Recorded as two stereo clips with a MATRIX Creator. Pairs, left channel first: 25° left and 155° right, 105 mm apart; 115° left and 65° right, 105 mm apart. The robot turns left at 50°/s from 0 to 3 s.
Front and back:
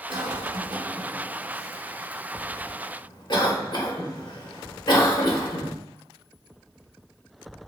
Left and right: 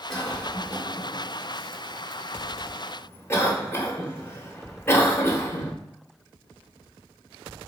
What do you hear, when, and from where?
0.1 s a cough: 160° right, 1.2 m; by 5.7 s 55° left, 1.2 m